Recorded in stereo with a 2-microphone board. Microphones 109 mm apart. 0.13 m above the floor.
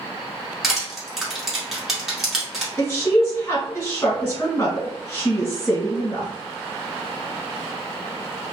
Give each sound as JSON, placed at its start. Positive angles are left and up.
{"t": 0.6, "sound": "crushing", "side_deg": -5, "distance_m": 1.5}
{"t": 2.8, "sound": "a woman speaking", "side_deg": 25, "distance_m": 1.9}